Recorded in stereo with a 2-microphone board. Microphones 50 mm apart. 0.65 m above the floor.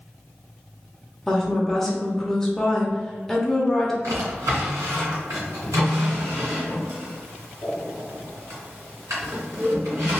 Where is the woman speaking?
10° left (ahead or behind), 0.7 m.